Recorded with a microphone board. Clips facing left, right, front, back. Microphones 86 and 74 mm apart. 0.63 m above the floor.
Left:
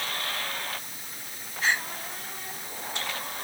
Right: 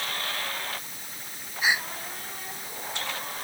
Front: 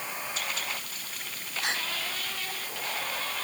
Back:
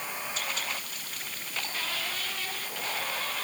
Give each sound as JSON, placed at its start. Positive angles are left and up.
{"t": 1.6, "sound": "a gasp", "azimuth_deg": -10}